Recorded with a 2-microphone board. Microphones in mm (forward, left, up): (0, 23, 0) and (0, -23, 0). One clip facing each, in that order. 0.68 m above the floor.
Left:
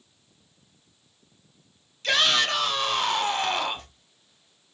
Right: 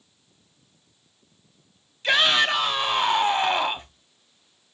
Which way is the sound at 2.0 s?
15° right (ahead or behind).